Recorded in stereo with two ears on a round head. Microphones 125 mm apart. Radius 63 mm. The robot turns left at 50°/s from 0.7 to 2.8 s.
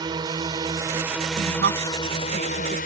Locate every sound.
0.0 s a drone: 150° right; by 2.9 s 105° left
1.3 s a woman speaking: 70° right (ahead or behind); by 2.8 s 35° right (ahead or behind)